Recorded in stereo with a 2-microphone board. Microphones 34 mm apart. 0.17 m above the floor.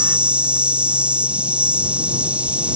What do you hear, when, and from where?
0.0 s an insect: 40° right (ahead or behind)